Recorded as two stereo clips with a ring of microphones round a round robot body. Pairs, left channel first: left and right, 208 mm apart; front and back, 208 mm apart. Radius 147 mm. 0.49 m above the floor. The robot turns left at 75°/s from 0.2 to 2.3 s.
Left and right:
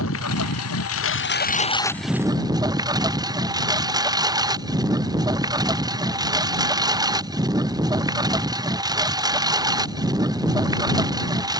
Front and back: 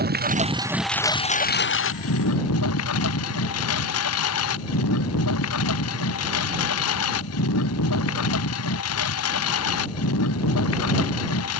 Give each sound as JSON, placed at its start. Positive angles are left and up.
{"t": 0.0, "sound": "a lawn mower", "azimuth_deg": 140}